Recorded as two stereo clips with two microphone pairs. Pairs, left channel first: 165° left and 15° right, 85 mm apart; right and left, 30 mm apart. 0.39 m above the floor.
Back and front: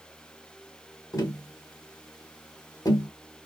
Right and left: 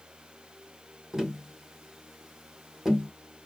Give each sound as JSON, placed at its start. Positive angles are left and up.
{"t": 1.1, "sound": "tapping", "azimuth_deg": 155, "distance_m": 1.6}